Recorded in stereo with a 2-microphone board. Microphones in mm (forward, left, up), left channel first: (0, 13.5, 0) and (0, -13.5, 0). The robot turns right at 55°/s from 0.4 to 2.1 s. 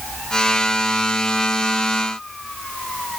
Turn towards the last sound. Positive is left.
No sound to turn to.